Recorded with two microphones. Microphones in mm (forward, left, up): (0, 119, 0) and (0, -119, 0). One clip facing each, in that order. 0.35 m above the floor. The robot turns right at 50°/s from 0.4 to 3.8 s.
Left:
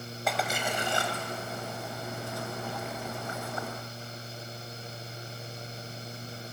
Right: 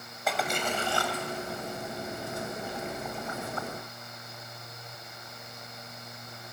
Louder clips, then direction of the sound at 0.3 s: Right 1 dB; centre (ahead or behind).